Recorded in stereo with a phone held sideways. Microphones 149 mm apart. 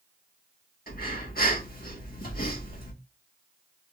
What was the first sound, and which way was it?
Breathing, 70° left (ahead or behind).